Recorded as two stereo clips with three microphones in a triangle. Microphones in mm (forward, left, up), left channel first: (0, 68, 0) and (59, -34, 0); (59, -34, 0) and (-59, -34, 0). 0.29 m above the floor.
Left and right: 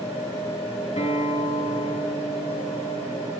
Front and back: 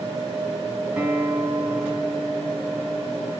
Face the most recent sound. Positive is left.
turn(degrees=105)